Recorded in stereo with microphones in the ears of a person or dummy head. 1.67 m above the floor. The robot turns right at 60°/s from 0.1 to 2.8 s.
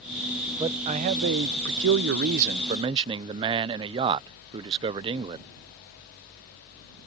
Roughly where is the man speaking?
Behind.